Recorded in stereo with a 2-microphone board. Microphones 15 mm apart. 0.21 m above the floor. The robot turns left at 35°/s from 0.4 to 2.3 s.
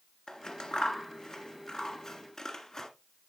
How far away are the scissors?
About 1.4 m.